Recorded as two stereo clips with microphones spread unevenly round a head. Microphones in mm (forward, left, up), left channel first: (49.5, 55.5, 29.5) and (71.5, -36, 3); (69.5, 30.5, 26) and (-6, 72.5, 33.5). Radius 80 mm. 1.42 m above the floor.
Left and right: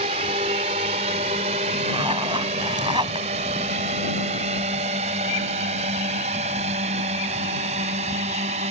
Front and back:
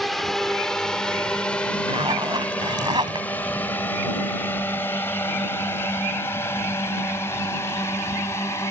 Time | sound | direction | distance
0.0 | a drone | 120° right | ?
1.9 | a zipper | 145° right | ?